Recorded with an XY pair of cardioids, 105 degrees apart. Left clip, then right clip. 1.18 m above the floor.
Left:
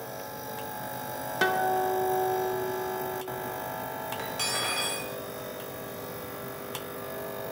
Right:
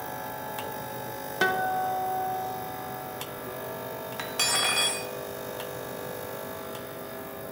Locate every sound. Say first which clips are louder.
1.4 s a guitar: even; 5° right, 0.6 m
4.2 s cutlery clinking: right 5 dB; 50° right, 0.8 m